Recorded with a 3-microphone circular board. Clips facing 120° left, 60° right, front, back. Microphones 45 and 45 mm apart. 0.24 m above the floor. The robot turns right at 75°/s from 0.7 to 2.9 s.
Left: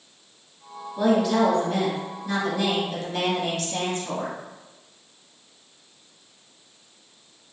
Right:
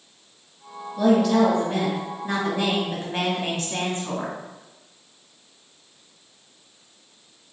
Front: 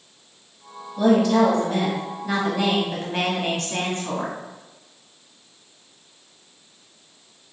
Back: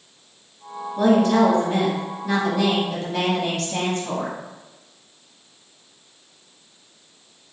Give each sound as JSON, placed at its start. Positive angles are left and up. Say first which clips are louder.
{"t": 1.0, "sound": "a woman speaking", "louder": "right 2 dB, back 1 dB", "azimuth_deg": 170, "distance_m": 1.6}